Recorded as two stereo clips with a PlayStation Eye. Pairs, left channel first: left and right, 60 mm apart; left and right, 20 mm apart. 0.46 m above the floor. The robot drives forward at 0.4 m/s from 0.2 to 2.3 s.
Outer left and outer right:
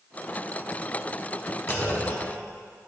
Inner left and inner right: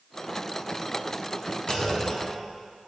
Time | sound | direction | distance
1.7 | a clunk | 50° left (ahead or behind) | 1.8 m